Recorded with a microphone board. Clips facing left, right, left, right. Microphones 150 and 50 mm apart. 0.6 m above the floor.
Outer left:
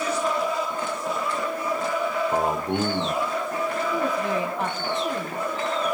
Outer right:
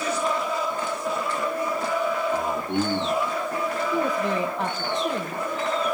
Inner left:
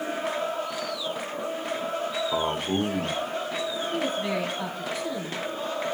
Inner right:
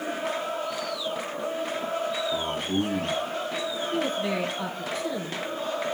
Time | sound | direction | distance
2.3 | a man speaking | 70° left (ahead or behind) | 1.8 m
3.9 | a woman speaking | 5° left (ahead or behind) | 3.5 m